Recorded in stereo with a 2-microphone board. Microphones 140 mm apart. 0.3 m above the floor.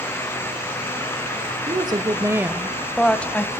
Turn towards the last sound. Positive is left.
turn(degrees=10)  # may be behind; listen again after turning